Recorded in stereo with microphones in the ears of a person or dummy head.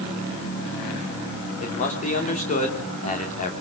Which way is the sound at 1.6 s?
40° left (ahead or behind).